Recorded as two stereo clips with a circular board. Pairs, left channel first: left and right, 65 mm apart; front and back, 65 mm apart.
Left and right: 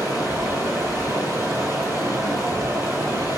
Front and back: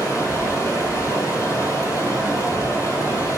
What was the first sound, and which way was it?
Running water, 45° right.